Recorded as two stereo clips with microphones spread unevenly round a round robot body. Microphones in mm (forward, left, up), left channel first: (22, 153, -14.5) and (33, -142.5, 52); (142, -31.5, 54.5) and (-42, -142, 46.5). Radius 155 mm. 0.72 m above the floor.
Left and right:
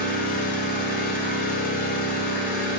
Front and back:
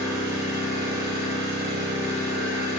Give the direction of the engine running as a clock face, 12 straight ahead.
7 o'clock.